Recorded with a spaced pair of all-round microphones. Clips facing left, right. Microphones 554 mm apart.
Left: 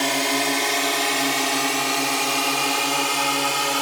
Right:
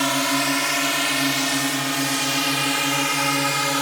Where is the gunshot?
No gunshot in this recording.